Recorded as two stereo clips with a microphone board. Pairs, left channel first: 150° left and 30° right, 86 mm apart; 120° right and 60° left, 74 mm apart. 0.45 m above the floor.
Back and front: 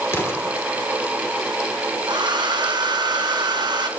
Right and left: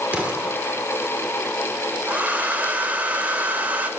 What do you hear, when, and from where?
0.1 s an explosion: 120° left, 1.1 m
2.1 s a hair dryer: 5° right, 0.6 m